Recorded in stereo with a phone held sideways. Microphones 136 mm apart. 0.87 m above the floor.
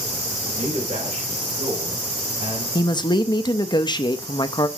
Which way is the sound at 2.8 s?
35° left (ahead or behind).